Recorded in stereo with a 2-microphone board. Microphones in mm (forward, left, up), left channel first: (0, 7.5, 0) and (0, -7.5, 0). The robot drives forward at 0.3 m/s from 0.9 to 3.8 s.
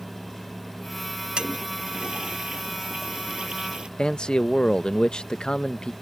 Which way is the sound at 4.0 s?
75° left (ahead or behind).